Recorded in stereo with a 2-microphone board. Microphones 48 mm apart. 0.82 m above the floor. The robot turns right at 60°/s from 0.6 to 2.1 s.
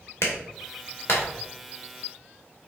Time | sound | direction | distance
0.2 | a clap | 85° left | 2 m